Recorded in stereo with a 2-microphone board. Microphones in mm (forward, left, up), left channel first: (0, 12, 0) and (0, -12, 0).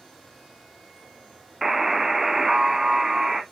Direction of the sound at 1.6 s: 15° right (ahead or behind).